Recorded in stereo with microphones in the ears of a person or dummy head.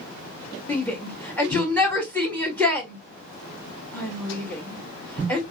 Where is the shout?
10° left (ahead or behind), 1.7 m.